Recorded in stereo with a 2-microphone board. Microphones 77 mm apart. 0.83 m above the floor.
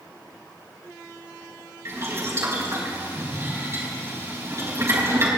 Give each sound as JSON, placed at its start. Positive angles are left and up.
{"t": 1.9, "sound": "boiling", "side_deg": -40, "distance_m": 4.0}